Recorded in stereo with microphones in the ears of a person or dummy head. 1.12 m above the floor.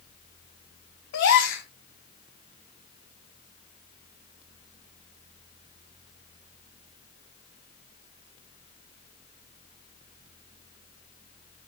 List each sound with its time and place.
1.1 s a gasp: 60° left (ahead or behind), 2.5 m